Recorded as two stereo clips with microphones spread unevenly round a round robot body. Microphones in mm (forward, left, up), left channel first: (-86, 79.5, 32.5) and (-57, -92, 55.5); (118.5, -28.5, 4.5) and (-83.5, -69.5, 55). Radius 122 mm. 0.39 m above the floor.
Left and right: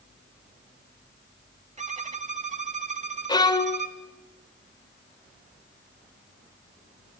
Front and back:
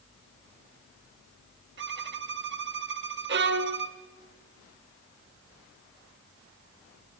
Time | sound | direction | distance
1.8 | a violin | 130° right | 1.4 m
3.3 | a violin | 150° left | 1.6 m